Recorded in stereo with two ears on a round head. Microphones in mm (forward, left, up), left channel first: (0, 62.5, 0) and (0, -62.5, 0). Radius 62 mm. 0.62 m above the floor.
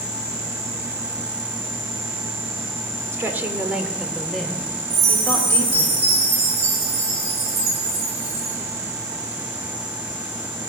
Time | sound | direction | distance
3.1 | a woman speaking | 20° right (ahead or behind) | 1.7 m
4.9 | a chime | 50° right (ahead or behind) | 8.5 m